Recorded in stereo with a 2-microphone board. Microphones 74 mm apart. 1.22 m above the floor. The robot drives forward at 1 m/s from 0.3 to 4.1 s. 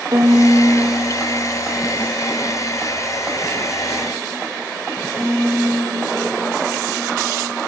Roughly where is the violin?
Right.